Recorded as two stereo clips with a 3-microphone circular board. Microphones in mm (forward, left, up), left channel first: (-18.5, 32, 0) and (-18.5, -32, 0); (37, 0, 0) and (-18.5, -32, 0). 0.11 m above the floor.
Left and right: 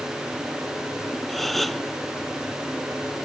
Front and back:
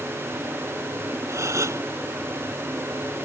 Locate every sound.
1.3 s a gasp: straight behind